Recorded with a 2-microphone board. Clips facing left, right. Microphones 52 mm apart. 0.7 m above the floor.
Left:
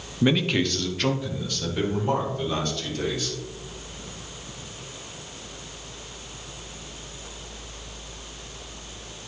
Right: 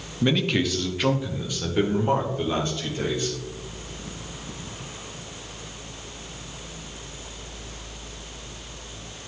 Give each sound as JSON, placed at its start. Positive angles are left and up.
{"t": 0.2, "sound": "a man speaking", "side_deg": 10, "distance_m": 0.6}